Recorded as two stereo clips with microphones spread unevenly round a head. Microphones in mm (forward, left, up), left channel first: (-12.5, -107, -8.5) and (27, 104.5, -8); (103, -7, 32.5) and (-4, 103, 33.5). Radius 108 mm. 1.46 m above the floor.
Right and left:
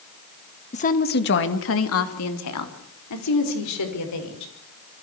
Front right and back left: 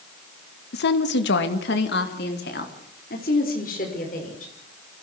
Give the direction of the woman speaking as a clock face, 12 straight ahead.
1 o'clock.